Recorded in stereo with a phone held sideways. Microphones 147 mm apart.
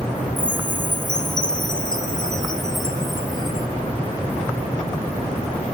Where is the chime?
30° left (ahead or behind), 0.9 m.